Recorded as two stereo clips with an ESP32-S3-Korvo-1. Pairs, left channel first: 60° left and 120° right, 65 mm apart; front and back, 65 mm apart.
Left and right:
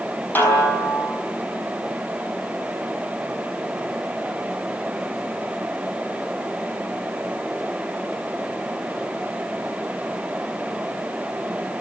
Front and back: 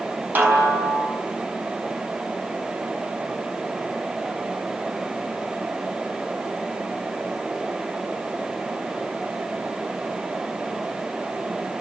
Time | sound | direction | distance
0.3 | a snare drum | 120° left | 5.5 m